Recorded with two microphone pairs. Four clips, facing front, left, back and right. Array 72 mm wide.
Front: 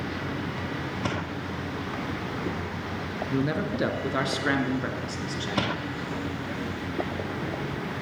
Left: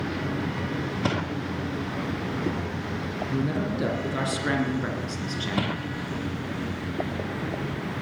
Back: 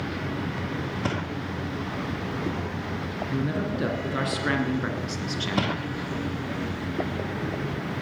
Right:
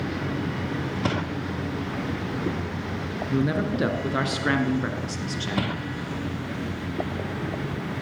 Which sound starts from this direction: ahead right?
A man speaking, at 3.3 s.